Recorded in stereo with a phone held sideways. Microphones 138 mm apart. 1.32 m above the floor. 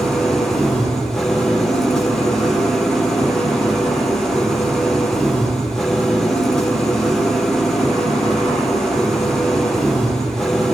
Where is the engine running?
Centre (ahead or behind), 4 m.